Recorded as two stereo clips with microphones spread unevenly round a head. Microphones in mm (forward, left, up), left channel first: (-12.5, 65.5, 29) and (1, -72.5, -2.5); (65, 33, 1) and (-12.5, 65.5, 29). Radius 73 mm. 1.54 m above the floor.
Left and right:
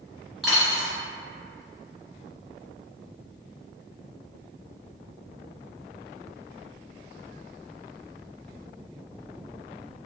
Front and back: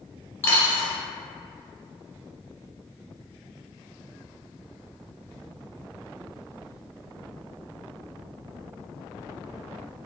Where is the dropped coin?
45° left, 1.5 m.